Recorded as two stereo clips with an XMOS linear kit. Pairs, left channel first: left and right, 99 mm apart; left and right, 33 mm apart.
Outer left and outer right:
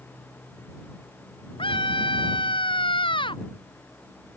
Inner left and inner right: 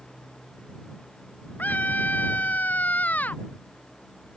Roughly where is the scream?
Left.